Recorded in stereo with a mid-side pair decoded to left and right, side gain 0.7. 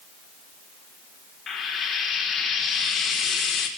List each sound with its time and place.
1.5 s frying: 35° left, 5 m